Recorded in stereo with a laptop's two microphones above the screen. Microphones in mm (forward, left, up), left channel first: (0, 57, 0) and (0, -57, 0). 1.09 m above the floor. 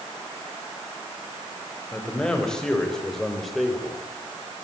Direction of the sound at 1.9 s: 10° left (ahead or behind).